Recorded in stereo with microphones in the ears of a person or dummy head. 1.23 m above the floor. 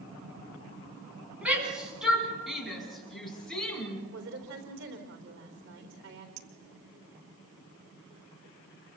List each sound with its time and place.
1.4 s a shout: 5° right (ahead or behind), 9.5 m; by 4.0 s 5° left (ahead or behind), 9 m
4.1 s a woman speaking: 65° right (ahead or behind), 3.5 m
6.4 s a clink: 85° right, 2.5 m